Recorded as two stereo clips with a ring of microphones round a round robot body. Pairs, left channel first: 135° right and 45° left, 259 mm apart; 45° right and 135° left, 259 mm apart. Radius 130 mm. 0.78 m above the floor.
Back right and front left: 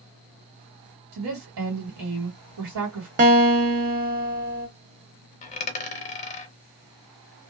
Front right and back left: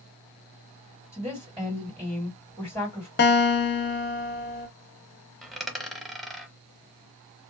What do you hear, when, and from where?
1.1 s a woman speaking: 50° left, 1.8 m
3.2 s a guitar: 5° right, 0.6 m
5.4 s a dropped coin: 135° right, 0.5 m